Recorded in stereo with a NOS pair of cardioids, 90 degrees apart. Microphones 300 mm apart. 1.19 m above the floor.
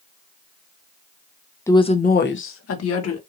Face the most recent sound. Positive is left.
turn(degrees=60)